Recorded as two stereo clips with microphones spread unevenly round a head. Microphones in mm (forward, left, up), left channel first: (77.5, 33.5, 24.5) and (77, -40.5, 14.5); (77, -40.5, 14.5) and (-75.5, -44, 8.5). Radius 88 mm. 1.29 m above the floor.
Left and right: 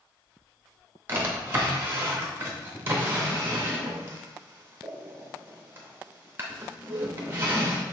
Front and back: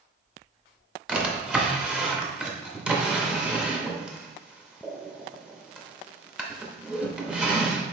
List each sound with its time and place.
1.1 s a drawer: 100° right, 0.6 m